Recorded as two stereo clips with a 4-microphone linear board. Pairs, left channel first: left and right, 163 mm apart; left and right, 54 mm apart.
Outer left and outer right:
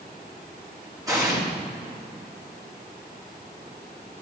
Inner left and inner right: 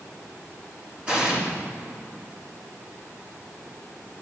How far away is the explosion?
About 3.5 m.